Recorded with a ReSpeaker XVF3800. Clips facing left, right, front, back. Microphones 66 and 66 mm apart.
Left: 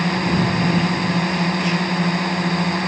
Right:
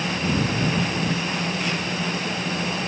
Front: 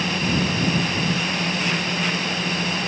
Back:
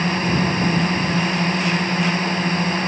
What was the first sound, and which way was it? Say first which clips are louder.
A drone: left 5 dB, back 3 dB; 125° left.